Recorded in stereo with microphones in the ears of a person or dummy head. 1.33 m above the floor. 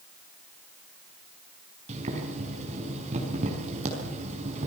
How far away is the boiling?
About 6 m.